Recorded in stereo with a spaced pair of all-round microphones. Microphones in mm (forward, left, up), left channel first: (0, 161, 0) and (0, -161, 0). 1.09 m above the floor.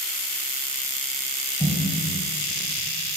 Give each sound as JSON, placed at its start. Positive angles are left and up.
{"t": 1.6, "sound": "a snare drum", "side_deg": 10, "distance_m": 4.5}